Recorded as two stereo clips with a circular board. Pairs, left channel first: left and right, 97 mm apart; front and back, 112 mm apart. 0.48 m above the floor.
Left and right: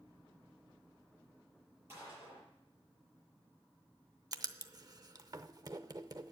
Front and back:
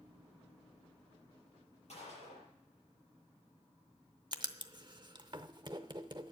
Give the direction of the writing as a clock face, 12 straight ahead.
4 o'clock.